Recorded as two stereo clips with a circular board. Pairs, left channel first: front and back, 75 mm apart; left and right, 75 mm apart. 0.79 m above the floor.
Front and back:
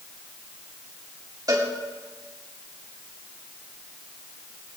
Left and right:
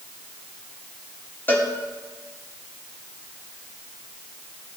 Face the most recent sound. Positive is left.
turn(degrees=150)